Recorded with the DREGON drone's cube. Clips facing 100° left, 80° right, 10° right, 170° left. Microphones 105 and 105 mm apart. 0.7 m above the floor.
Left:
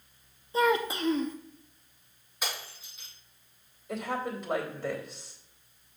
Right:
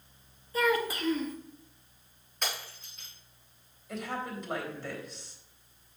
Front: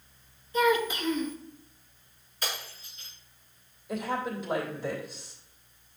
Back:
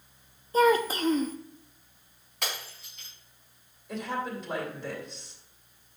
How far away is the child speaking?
About 0.5 m.